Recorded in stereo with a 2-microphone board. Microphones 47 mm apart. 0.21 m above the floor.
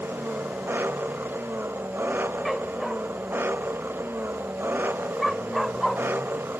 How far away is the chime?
No chime in this recording.